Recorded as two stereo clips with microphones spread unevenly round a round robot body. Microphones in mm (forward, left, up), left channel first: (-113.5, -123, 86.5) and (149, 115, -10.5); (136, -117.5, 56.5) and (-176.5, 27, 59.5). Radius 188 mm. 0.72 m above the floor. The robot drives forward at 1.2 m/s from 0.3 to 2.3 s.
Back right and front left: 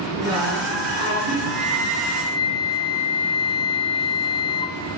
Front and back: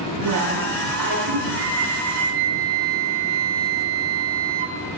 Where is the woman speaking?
115° left, 8.5 m; by 1.4 s 120° left, 9.5 m.